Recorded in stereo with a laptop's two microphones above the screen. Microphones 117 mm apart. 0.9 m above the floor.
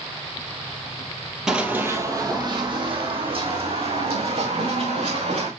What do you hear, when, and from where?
1.5 s running footsteps: 5° right (ahead or behind), 1.3 m; by 5.5 s 65° right (ahead or behind), 5 m